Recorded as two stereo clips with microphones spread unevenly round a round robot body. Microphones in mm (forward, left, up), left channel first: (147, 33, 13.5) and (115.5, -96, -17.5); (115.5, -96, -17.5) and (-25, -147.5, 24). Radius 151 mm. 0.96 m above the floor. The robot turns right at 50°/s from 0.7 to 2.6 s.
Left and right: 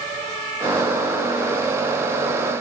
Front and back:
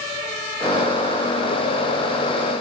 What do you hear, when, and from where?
Only background noise.